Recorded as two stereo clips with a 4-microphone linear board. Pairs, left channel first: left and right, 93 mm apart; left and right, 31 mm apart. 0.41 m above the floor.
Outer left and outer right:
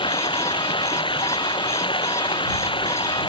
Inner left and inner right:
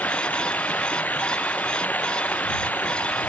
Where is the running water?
65° left (ahead or behind).